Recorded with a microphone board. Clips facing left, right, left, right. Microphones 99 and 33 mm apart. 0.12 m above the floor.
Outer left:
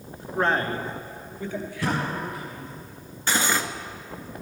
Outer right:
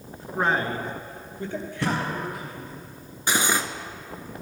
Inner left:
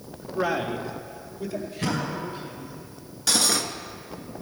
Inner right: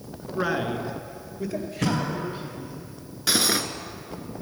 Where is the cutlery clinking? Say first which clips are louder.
Even, inner right 1 dB; 20° right (ahead or behind), 0.8 m.